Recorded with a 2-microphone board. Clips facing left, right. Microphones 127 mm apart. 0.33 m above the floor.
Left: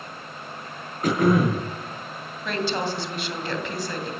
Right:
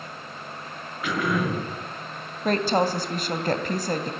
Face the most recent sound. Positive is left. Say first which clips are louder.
# right 5 dB
turn(degrees=-40)  # may be behind; listen again after turning